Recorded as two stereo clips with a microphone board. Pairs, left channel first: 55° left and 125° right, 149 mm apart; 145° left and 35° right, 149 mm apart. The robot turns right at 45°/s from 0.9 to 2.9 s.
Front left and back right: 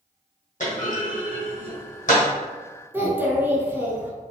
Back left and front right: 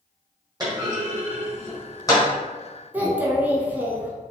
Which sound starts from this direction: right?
A child speaking, at 2.9 s.